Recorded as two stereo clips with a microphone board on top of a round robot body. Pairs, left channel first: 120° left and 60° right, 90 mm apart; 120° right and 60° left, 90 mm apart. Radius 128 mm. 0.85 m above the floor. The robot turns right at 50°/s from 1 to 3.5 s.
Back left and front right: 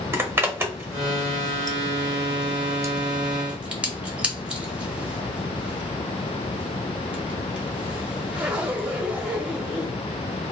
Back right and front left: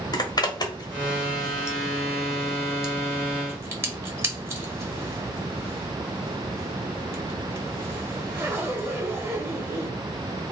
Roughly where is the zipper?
Behind right.